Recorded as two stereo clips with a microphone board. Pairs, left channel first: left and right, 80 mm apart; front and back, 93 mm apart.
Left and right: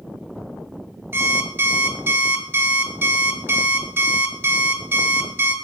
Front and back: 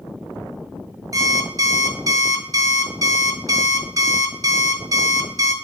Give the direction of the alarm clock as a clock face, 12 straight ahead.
5 o'clock.